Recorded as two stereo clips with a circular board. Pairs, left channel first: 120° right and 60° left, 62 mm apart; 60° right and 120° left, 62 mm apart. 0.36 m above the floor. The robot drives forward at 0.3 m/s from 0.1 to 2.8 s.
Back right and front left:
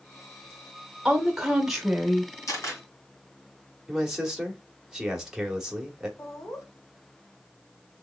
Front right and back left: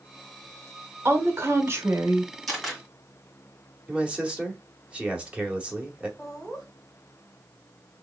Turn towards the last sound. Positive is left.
turn(degrees=-135)